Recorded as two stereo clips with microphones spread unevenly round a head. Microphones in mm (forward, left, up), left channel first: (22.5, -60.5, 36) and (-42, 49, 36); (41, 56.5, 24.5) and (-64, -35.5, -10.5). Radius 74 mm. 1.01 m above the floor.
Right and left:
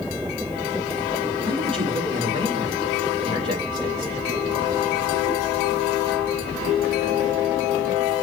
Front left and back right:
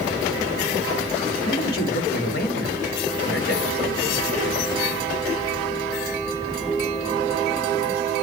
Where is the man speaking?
65° left, 1.7 m.